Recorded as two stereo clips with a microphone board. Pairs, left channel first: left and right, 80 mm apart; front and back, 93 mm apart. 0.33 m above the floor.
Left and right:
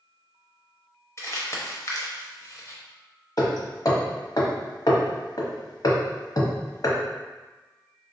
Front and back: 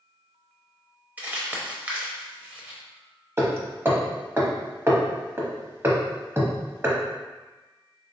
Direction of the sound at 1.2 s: 115° left.